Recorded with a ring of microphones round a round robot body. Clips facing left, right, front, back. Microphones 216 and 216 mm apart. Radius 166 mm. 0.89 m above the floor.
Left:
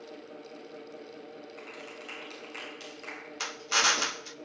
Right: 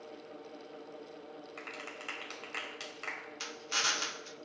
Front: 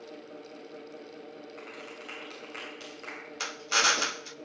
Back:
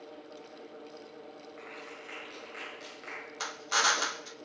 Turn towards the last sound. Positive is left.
turn(degrees=65)